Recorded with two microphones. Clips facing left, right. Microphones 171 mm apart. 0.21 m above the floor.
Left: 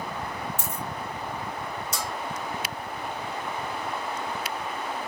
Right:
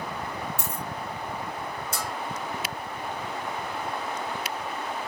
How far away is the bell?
About 0.9 m.